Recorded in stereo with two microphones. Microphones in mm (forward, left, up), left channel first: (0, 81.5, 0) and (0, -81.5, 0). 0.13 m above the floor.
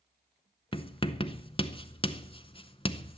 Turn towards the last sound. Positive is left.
turn(degrees=35)  # may be behind; listen again after turning